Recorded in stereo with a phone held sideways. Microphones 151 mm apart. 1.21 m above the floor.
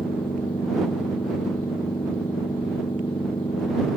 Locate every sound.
0.0 s a machine running: 35° left (ahead or behind)